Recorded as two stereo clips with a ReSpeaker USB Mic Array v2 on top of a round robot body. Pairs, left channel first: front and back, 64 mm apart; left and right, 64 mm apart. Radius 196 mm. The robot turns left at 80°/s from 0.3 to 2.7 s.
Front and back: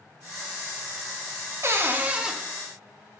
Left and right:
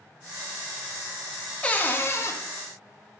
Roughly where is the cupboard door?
Behind left.